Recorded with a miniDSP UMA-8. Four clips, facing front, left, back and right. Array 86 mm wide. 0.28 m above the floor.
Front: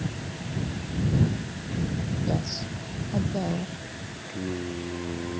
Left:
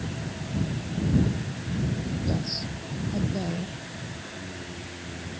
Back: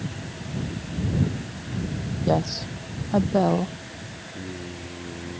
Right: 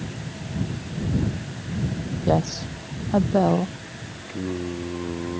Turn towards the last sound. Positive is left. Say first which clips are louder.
# right 10 dB, front 5 dB
turn(degrees=-75)